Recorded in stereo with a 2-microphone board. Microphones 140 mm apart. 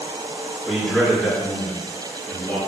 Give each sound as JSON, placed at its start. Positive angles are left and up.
{"t": 0.7, "sound": "a man speaking", "side_deg": 5, "distance_m": 5.0}